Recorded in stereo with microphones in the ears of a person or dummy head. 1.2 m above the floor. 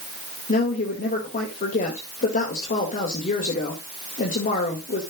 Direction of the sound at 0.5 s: 45° left (ahead or behind).